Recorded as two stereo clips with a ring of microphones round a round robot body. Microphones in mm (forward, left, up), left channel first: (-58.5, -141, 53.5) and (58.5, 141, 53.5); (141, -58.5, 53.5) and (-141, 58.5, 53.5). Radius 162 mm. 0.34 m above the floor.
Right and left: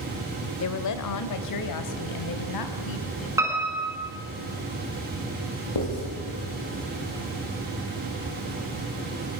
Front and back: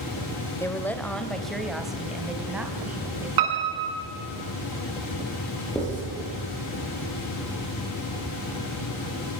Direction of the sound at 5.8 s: 105° right.